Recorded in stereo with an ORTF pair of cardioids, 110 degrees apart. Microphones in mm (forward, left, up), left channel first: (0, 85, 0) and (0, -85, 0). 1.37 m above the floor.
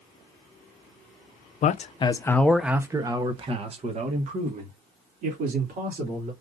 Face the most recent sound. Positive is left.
turn(degrees=-55)